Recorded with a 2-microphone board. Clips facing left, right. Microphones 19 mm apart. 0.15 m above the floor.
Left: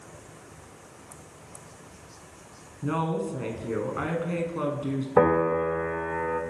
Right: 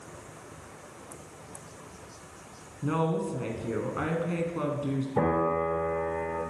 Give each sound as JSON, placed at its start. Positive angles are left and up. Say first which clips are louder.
{"t": 2.8, "sound": "a woman speaking", "louder": "even", "side_deg": 5, "distance_m": 1.4}
{"t": 5.2, "sound": "a piano", "louder": "left 6 dB", "side_deg": 80, "distance_m": 3.0}